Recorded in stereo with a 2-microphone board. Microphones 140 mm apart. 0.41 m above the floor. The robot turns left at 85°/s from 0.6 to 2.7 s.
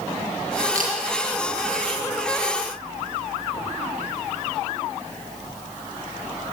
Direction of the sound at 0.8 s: 80° right.